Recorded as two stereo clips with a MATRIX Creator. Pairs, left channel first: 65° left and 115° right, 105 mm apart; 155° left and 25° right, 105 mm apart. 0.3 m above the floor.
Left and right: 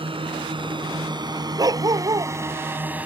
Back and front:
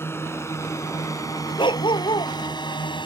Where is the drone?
140° right; by 3.1 s 175° left.